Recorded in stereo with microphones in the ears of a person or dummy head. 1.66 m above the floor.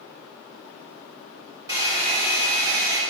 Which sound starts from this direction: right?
A hair dryer, at 1.7 s.